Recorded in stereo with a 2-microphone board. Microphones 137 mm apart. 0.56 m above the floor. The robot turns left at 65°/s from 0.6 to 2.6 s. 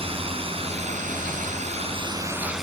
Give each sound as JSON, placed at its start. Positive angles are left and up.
{"t": 0.0, "sound": "a drone", "azimuth_deg": -45}